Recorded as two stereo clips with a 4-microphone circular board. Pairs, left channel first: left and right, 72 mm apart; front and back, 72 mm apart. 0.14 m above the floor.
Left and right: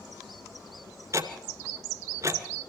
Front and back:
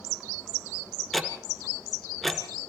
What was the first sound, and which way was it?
Ticking, 90° right.